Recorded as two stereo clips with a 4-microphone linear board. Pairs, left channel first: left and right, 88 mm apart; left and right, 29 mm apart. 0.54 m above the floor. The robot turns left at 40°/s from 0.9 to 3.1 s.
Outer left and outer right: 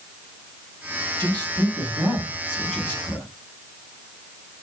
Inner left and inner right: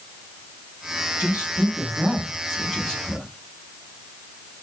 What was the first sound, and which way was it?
A man speaking, 125° right.